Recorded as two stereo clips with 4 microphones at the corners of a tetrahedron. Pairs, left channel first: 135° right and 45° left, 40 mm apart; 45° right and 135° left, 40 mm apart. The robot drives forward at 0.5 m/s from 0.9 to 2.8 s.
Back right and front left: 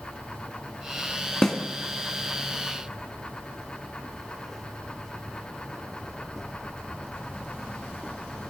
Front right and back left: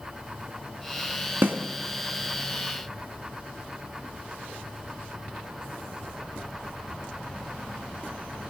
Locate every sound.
1.4 s a snare drum: 145° left, 1.2 m